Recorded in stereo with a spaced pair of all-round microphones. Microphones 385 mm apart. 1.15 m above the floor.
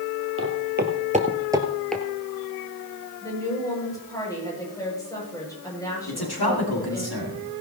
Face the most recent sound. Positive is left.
turn(degrees=75)  # may be behind; listen again after turning